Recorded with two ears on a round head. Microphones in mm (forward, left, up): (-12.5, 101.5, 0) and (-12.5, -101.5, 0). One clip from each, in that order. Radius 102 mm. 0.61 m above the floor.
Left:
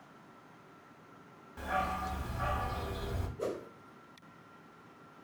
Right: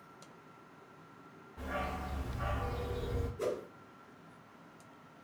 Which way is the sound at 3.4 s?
30° right (ahead or behind).